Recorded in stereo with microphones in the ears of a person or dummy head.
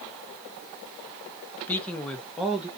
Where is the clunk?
No clunk in this recording.